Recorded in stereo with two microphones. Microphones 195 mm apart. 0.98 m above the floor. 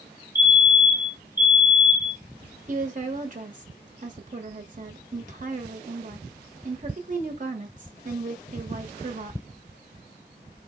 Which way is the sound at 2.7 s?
45° right (ahead or behind).